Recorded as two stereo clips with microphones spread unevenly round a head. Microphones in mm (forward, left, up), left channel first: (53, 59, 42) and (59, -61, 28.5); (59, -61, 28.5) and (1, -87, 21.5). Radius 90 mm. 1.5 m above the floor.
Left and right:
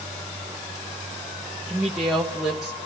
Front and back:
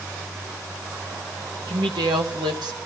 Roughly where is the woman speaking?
Behind.